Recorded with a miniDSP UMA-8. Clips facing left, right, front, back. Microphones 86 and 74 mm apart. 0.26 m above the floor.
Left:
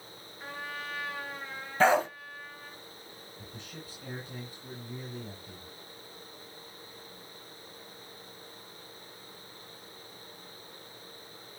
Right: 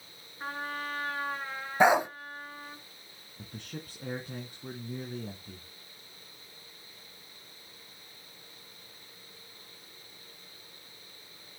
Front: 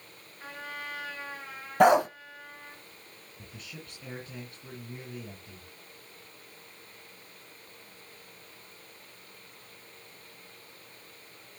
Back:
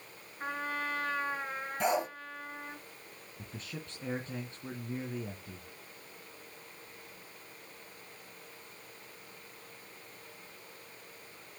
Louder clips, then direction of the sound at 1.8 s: Right 1 dB, front 11 dB; 15° right.